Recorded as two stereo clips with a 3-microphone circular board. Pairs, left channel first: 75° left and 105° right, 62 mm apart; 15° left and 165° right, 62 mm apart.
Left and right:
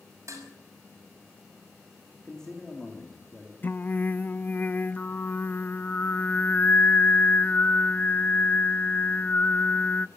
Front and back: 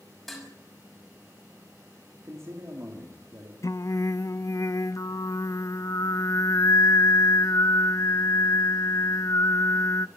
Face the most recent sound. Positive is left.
turn(degrees=20)